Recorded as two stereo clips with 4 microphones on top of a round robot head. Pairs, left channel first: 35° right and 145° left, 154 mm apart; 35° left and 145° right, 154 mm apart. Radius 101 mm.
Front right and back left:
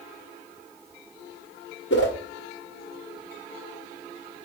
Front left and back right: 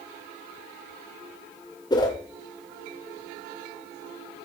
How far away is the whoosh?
About 2.5 m.